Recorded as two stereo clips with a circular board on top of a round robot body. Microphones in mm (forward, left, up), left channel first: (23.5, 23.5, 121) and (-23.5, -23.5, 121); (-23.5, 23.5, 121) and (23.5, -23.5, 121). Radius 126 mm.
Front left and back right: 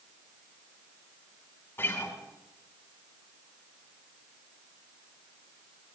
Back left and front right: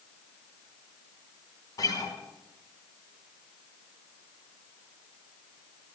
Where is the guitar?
105° left, 2.5 m.